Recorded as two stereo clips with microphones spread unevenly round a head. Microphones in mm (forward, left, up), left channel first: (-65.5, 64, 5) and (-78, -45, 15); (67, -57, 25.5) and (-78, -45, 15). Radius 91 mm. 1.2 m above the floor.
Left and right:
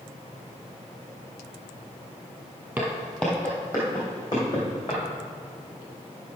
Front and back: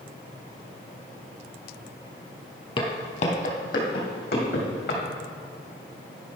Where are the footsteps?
25° right, 1.5 m; by 5.0 s 20° left, 4 m.